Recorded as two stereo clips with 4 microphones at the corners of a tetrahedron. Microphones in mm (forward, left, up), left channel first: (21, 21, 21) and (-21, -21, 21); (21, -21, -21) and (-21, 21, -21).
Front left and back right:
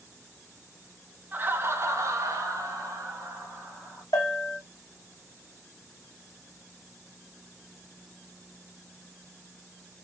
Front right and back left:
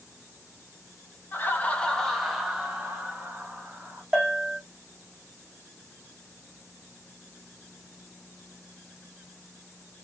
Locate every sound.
1.3 s laughter: 85° right, 0.6 m; by 4.0 s 160° right, 1.6 m
4.1 s a bell: 55° left, 0.8 m